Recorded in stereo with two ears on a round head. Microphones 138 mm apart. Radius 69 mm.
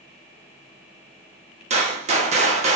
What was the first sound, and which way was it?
A gunshot, 45° right (ahead or behind).